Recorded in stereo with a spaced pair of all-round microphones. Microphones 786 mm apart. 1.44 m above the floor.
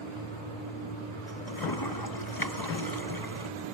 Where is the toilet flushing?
25° left (ahead or behind).